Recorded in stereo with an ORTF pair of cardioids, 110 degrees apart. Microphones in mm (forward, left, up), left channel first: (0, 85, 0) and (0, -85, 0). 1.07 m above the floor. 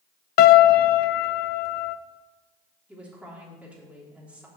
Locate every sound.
0.4 s a piano: 65° left, 0.5 m
2.9 s a woman speaking: 10° right, 3 m